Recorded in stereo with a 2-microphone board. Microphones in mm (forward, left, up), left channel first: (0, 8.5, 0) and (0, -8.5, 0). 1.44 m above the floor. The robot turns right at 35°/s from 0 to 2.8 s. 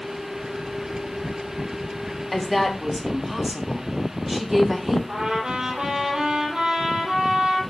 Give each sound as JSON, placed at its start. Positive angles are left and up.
{"t": 2.3, "sound": "a woman speaking", "side_deg": 5, "distance_m": 3.5}
{"t": 5.1, "sound": "a trumpet", "side_deg": -60, "distance_m": 7.0}